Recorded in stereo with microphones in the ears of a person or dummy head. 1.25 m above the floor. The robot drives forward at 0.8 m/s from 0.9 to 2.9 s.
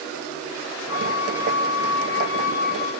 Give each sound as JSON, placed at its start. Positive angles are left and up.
{"t": 0.9, "sound": "a flute", "side_deg": 85, "distance_m": 2.0}